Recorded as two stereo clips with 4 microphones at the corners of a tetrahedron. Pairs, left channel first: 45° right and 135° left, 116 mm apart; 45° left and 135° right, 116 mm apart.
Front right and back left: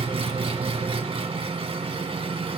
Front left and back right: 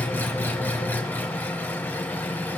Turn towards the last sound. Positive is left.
turn(degrees=115)